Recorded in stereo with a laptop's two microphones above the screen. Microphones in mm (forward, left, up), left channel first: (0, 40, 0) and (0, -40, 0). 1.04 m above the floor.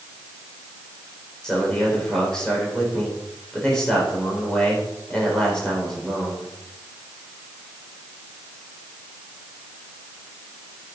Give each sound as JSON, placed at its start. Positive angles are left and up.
{"t": 1.4, "sound": "a man speaking", "side_deg": 10, "distance_m": 4.5}